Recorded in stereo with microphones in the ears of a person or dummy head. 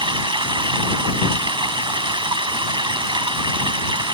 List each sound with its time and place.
0.0 s running water: 20° right (ahead or behind)